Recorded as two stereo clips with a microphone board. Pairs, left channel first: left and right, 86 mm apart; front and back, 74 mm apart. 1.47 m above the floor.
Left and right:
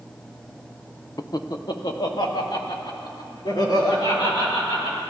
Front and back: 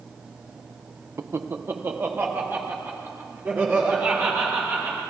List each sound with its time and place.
1.2 s laughter: 135° left, 0.6 m; by 5.0 s 120° left, 5.5 m